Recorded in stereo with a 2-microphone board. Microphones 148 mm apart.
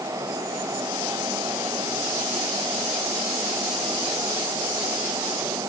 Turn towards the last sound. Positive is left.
No sound to turn to.